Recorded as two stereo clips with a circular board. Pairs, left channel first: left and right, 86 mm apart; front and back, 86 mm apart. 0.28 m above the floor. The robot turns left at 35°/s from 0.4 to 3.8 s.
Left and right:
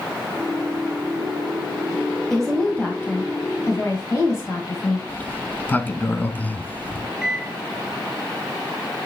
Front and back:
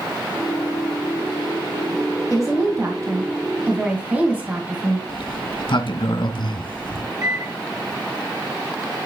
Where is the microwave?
175° left, 1.2 m.